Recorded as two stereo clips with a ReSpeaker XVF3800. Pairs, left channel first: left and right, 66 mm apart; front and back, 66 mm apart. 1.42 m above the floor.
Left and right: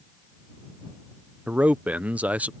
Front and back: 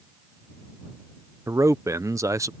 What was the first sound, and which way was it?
A man speaking, 155° right.